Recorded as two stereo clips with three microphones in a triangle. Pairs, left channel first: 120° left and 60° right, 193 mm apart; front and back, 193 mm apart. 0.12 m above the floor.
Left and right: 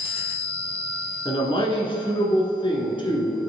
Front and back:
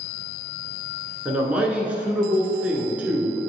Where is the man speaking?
105° left, 1.2 m.